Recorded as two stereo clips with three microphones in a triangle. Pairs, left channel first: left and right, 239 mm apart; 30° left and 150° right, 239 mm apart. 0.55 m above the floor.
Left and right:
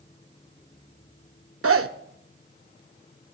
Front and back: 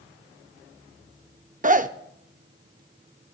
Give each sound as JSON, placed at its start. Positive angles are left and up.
{"t": 1.6, "sound": "a zipper", "azimuth_deg": -95, "distance_m": 0.6}